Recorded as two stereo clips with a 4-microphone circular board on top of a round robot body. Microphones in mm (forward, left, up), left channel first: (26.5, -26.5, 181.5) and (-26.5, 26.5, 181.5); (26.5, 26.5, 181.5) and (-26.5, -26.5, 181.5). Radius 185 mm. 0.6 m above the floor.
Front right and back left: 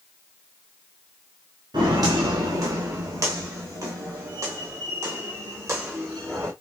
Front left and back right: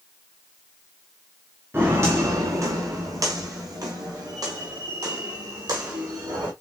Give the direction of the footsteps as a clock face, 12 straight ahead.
7 o'clock.